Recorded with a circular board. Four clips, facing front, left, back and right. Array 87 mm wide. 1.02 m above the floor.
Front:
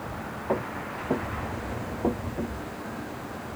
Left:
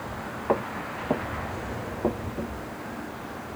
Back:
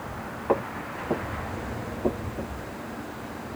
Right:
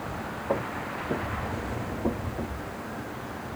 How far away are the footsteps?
About 1.2 m.